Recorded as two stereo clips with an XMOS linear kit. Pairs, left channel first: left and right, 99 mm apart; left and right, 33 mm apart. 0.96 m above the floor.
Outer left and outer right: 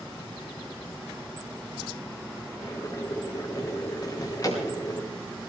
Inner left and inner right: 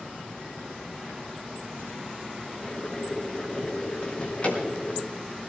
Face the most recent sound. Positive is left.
turn(degrees=40)  # may be behind; listen again after turning